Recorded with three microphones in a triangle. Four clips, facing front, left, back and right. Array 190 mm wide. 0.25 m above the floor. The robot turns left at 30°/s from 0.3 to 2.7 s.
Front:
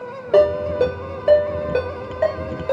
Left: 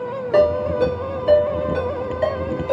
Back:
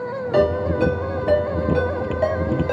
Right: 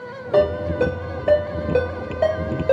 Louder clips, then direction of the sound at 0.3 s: Left 2 dB, front 4 dB; 10° left.